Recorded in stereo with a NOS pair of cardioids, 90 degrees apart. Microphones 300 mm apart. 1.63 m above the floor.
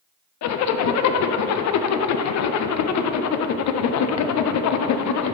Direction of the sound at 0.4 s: 65° left.